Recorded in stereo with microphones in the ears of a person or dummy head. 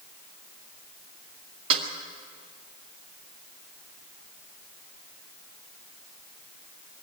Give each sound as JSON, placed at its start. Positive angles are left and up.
{"t": 1.7, "sound": "a snare drum", "side_deg": -30, "distance_m": 2.0}